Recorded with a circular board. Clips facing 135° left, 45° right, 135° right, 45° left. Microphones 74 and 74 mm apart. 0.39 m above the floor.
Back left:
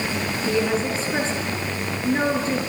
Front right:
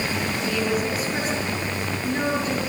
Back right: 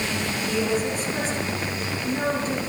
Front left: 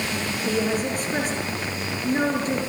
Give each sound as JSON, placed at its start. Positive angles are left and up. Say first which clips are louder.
{"t": 0.5, "sound": "a woman speaking", "louder": "back left 3 dB, front left 1 dB", "azimuth_deg": 75, "distance_m": 7.5}